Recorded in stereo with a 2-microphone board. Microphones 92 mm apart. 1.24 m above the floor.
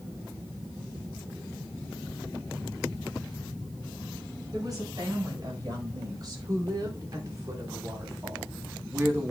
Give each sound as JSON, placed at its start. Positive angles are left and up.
{"t": 4.5, "sound": "a woman speaking", "side_deg": -45, "distance_m": 5.0}